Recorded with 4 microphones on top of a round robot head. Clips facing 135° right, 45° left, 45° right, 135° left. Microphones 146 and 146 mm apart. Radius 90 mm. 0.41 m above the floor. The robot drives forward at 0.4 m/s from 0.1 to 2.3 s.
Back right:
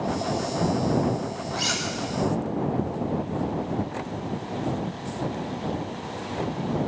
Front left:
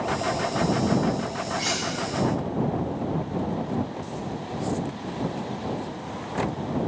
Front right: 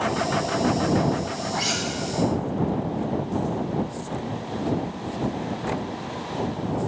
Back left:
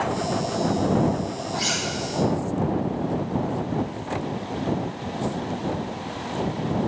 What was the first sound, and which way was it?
Cutlery clinking, 120° right.